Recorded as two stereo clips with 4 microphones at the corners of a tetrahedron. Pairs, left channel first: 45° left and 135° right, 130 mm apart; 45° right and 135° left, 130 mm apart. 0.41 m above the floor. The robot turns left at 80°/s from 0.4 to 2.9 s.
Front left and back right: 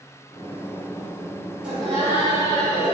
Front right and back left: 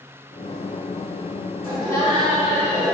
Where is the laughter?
150° left, 1.7 m; by 3.0 s 45° left, 1.7 m.